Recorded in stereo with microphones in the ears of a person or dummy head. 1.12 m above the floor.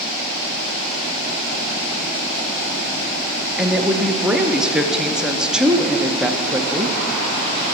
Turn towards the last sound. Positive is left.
turn(degrees=-5)  # may be behind; listen again after turning